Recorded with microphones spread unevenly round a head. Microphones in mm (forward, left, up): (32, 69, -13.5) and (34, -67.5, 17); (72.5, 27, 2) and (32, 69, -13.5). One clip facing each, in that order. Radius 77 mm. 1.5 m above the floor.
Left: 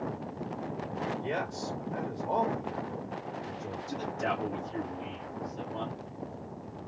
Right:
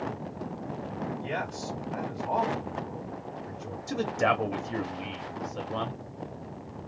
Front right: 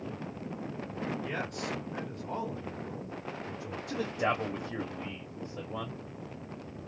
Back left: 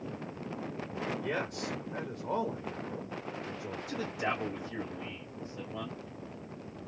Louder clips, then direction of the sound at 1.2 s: Even, back left 1 dB; 150° left.